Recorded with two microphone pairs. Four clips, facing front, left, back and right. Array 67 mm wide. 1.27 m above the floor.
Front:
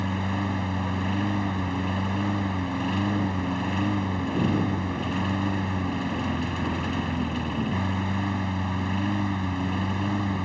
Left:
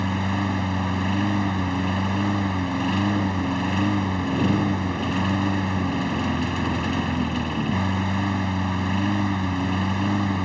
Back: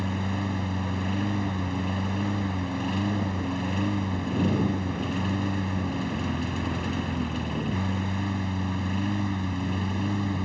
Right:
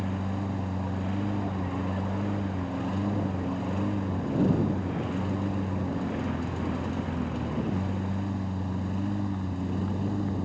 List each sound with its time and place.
0.0 s a lawn mower: 75° left